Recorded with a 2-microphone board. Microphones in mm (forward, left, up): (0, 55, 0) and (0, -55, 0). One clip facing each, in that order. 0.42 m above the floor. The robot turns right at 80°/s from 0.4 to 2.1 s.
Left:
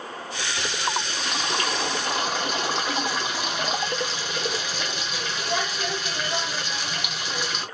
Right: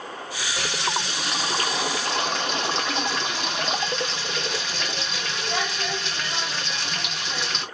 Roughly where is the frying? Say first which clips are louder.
Right 1 dB; behind right.